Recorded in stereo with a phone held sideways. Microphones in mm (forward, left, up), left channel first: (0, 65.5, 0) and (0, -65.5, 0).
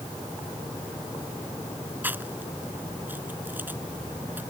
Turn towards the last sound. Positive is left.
turn(degrees=-15)  # may be behind; listen again after turning